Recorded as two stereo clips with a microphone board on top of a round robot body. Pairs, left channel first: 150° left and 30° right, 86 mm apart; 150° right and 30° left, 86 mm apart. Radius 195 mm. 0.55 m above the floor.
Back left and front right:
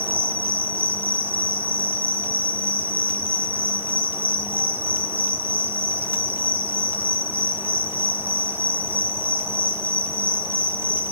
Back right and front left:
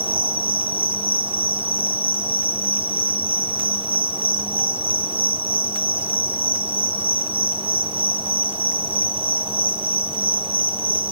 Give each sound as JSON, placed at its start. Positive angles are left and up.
{"t": 0.0, "sound": "an insect", "azimuth_deg": 35, "distance_m": 1.2}